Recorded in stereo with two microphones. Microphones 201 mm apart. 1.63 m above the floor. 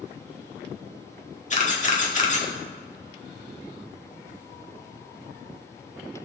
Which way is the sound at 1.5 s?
40° left (ahead or behind).